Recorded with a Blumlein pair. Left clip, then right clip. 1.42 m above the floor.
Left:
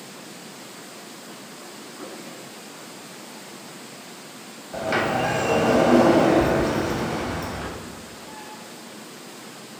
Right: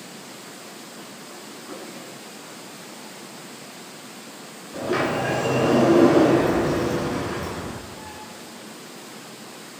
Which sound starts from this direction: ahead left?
A sliding door, at 4.7 s.